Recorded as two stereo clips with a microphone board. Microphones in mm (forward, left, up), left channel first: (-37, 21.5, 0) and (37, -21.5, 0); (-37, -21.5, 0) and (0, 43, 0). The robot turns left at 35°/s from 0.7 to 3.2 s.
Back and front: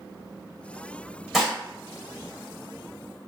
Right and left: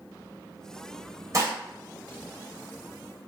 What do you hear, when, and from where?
1.3 s dishes clattering: 55° left, 0.8 m; by 1.6 s 50° left, 0.8 m